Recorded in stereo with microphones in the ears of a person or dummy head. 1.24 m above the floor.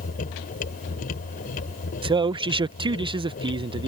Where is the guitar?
I don't hear a guitar.